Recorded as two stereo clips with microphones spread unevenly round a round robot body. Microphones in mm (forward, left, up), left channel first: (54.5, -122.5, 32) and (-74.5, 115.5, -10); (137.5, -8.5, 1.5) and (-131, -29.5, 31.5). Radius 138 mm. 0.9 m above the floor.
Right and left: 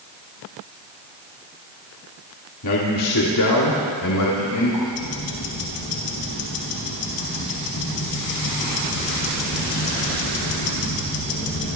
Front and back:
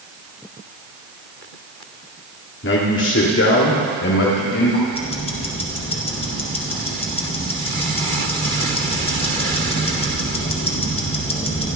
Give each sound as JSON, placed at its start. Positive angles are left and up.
{"t": 2.6, "sound": "a man speaking", "azimuth_deg": -40, "distance_m": 2.0}
{"t": 4.9, "sound": "ticking", "azimuth_deg": -65, "distance_m": 3.0}